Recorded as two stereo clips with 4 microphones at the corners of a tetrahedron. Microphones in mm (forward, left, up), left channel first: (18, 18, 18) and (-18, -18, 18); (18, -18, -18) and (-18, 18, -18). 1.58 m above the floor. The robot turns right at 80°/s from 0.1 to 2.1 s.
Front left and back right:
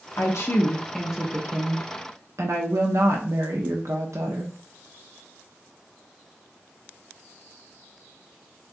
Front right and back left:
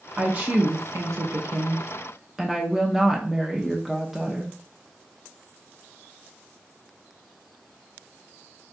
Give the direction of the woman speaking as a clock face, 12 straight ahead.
10 o'clock.